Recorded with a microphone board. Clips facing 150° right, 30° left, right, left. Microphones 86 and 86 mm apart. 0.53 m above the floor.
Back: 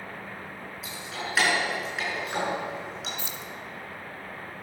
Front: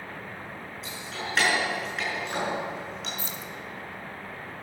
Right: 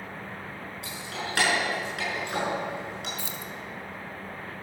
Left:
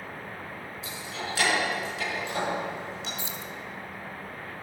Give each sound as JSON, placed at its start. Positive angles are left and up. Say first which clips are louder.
{"t": 0.8, "sound": "keys jangling", "louder": "back 1 dB, even", "azimuth_deg": -65, "distance_m": 5.0}
{"t": 3.2, "sound": "keys jangling", "louder": "front 1 dB, even", "azimuth_deg": 35, "distance_m": 0.8}